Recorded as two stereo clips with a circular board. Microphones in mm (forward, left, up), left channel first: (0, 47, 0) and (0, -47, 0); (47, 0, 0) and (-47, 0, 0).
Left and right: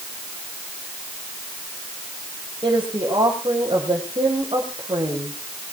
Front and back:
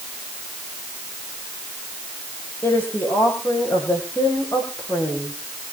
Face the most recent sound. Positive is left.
turn(degrees=-60)